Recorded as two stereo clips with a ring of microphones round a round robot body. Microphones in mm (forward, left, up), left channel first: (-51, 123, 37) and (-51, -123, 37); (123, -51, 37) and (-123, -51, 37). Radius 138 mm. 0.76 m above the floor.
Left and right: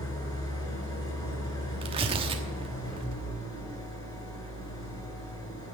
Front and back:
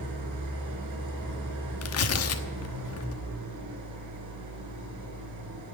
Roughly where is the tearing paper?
Ahead.